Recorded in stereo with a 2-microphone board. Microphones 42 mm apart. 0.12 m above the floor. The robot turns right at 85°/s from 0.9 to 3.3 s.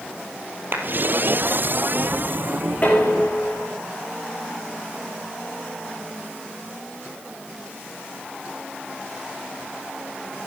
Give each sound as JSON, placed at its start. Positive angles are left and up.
{"t": 0.7, "sound": "a clap", "side_deg": -55, "distance_m": 2.5}
{"t": 2.8, "sound": "dishes clattering", "azimuth_deg": 35, "distance_m": 5.5}